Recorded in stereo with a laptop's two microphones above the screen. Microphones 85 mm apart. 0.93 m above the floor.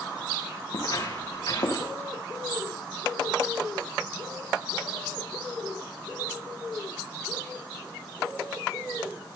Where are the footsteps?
45° left (ahead or behind), 7.5 m; by 1.9 s 50° left (ahead or behind), 7.5 m.